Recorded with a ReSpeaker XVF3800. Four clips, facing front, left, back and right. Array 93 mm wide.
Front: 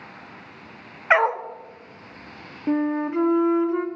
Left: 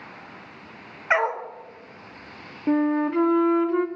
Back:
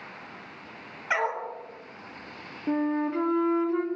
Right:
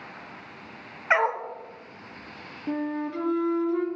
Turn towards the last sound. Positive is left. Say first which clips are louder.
# left 8 dB, front 3 dB
turn(degrees=70)